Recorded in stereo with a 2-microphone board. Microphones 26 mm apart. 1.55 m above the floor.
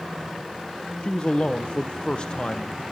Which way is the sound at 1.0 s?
40° left (ahead or behind).